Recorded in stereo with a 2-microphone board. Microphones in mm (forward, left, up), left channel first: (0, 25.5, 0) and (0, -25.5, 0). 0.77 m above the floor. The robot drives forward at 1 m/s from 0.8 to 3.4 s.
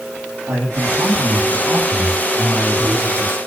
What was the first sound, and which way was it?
A man speaking, 80° right.